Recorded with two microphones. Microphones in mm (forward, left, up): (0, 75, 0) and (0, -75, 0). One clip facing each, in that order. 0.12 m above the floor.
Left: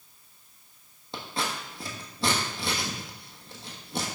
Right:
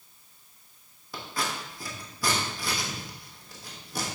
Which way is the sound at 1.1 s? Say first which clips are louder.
Left 1 dB; 25° left (ahead or behind).